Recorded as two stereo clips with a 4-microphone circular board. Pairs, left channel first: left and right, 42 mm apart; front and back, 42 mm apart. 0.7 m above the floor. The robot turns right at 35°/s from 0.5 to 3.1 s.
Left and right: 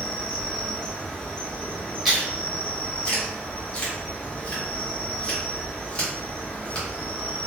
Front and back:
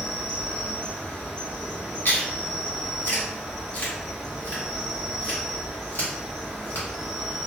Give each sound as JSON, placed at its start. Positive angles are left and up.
{"t": 0.0, "sound": "an insect", "azimuth_deg": 5, "distance_m": 2.0}
{"t": 2.0, "sound": "chewing", "azimuth_deg": 0, "distance_m": 1.7}